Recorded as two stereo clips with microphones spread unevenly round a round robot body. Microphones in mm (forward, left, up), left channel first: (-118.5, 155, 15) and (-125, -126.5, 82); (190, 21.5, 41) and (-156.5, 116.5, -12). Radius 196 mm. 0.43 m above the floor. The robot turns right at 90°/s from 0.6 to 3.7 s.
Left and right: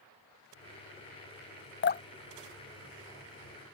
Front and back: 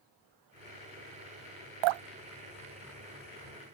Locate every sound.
1.8 s dripping: 145° left; by 3.6 s 55° right